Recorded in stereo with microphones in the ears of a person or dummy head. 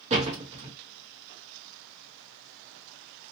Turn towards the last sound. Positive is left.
turn(degrees=-35)  # may be behind; listen again after turning